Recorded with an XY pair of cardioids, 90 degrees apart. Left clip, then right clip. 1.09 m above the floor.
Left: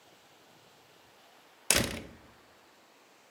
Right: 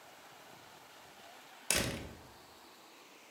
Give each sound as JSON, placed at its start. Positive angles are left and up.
{"t": 1.7, "sound": "a door slam", "azimuth_deg": 55, "distance_m": 0.6}